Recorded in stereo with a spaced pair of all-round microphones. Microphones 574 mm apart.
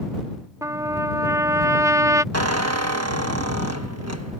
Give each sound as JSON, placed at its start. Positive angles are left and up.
{"t": 0.6, "sound": "a trumpet", "side_deg": -5}
{"t": 2.3, "sound": "a squeak", "side_deg": -25}